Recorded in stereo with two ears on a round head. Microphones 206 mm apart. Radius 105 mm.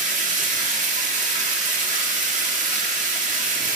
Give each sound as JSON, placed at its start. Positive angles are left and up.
{"t": 0.0, "sound": "running water", "side_deg": -35, "distance_m": 1.1}